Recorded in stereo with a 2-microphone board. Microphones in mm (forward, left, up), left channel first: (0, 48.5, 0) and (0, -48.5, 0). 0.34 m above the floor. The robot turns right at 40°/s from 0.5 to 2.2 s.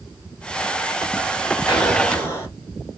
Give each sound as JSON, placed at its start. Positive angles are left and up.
{"t": 1.7, "sound": "an explosion", "side_deg": 50, "distance_m": 2.0}